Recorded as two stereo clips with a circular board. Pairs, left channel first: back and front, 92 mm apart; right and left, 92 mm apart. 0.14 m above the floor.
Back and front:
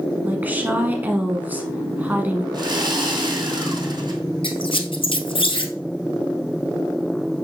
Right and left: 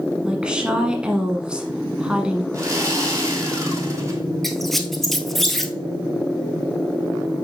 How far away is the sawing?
About 2 m.